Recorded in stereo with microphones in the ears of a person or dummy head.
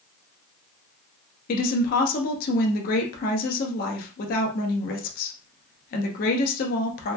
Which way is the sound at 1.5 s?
50° left (ahead or behind).